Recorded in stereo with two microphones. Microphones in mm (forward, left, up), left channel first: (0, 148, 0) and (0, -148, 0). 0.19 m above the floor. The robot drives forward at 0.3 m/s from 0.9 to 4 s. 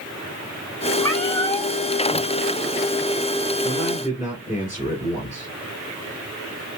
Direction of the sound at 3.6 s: 10° right (ahead or behind).